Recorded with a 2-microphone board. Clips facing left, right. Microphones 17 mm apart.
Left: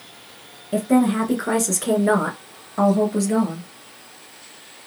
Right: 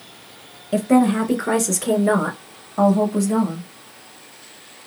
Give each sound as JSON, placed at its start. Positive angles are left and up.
{"t": 0.7, "sound": "a woman speaking", "side_deg": -20, "distance_m": 1.2}